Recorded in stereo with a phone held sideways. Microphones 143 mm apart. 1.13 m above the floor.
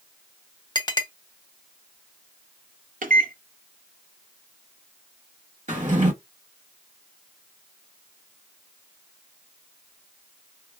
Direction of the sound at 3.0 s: 70° right (ahead or behind).